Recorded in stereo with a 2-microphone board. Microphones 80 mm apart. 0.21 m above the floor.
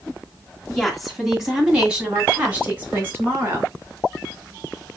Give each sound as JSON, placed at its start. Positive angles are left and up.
{"t": 0.7, "sound": "a woman speaking", "side_deg": 5, "distance_m": 1.7}